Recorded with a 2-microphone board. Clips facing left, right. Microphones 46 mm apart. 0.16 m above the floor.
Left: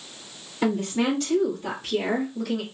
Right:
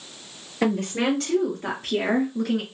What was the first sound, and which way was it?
A woman speaking, 65° right (ahead or behind).